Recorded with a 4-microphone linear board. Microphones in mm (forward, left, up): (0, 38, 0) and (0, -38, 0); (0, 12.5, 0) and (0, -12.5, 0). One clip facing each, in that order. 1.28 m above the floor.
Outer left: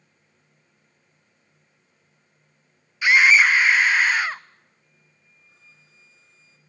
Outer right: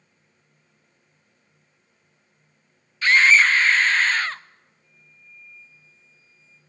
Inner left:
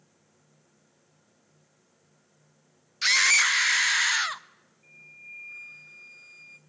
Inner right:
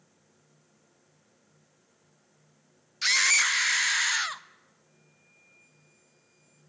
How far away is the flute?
About 0.9 m.